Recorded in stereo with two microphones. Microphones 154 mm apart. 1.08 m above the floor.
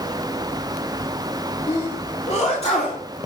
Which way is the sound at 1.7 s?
40° left (ahead or behind).